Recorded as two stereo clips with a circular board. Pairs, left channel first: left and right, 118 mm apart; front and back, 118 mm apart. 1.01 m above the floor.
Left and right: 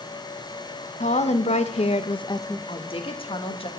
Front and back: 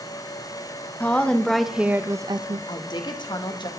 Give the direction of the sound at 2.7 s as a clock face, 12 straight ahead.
10 o'clock.